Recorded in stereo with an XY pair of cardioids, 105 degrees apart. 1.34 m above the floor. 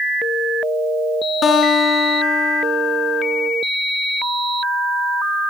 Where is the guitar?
60° left, 10 m.